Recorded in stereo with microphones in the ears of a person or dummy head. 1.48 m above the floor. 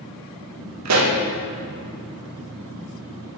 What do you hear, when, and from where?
0.8 s a pop: 80° right, 2.5 m